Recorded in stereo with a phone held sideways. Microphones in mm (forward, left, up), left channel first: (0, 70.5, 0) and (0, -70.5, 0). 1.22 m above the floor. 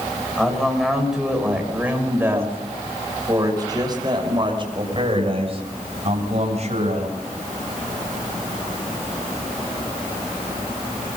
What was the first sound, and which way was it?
A man speaking, centre (ahead or behind).